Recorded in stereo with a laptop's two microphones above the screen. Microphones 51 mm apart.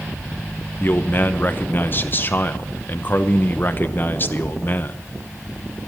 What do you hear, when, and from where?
0.8 s a man speaking: 35° left (ahead or behind), 0.8 m